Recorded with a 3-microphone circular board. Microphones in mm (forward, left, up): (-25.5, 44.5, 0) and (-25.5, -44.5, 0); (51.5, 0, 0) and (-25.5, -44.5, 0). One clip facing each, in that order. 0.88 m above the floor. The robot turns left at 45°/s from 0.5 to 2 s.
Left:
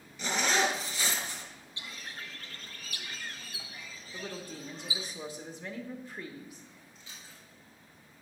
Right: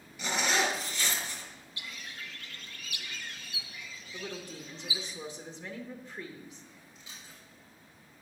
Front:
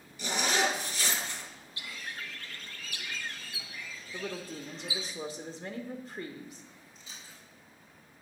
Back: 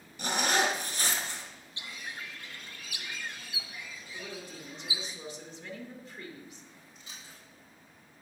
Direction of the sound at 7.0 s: 165° right.